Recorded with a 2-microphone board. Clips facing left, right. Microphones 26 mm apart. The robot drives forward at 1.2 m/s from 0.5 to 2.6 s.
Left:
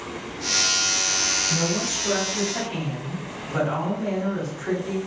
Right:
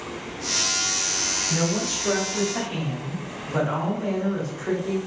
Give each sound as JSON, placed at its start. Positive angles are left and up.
{"t": 1.5, "sound": "a woman speaking", "side_deg": -30, "distance_m": 0.8}